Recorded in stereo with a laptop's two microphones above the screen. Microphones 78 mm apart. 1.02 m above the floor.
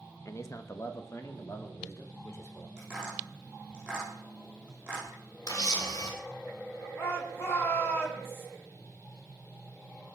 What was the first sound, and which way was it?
A man speaking, 40° left (ahead or behind).